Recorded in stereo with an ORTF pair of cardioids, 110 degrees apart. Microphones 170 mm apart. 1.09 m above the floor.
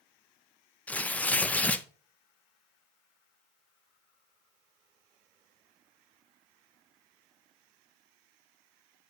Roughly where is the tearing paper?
Ahead.